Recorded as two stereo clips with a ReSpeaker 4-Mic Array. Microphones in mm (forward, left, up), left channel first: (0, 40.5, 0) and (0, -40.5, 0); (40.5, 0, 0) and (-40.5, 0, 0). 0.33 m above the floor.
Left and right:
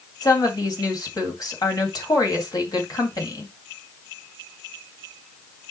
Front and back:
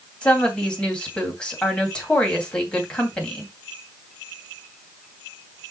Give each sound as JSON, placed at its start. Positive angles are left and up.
{"t": 0.2, "sound": "a woman speaking", "azimuth_deg": 75, "distance_m": 2.5}